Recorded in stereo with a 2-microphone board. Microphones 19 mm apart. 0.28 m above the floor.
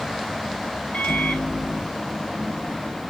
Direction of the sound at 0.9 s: 55° left (ahead or behind).